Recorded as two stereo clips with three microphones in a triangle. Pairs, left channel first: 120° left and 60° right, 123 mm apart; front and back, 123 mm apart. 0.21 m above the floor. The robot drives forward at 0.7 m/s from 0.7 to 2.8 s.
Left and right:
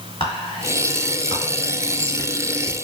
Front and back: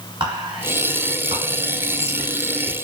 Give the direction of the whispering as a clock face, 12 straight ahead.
7 o'clock.